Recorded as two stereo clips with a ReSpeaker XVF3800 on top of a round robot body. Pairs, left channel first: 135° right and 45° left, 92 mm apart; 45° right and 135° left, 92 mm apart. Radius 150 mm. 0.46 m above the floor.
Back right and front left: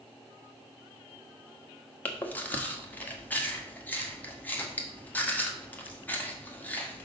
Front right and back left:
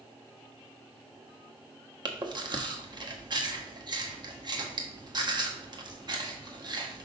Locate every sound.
2.0 s chewing: 155° left, 1.5 m